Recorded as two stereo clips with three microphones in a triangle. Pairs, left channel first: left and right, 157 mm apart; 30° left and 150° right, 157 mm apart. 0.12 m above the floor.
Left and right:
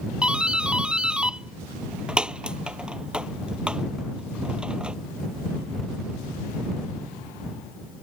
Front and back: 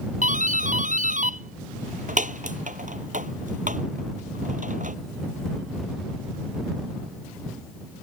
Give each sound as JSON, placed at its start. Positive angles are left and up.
{"t": 0.2, "sound": "a doorbell", "azimuth_deg": -175}